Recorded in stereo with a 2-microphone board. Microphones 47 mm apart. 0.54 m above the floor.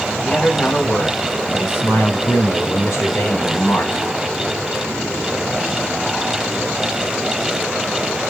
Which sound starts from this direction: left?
A man speaking, at 0.2 s.